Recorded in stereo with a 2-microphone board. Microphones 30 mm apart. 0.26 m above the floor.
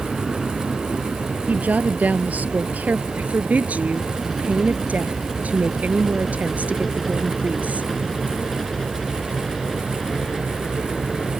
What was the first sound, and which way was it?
A helicopter, 10° right (ahead or behind).